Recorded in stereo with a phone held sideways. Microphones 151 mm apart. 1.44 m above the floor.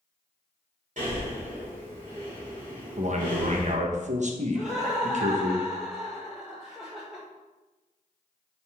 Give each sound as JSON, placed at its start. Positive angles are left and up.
{"t": 1.0, "sound": "breathing", "side_deg": -55, "distance_m": 3.5}
{"t": 3.0, "sound": "a man speaking", "side_deg": -50, "distance_m": 1.2}
{"t": 4.5, "sound": "laughter", "side_deg": -5, "distance_m": 1.4}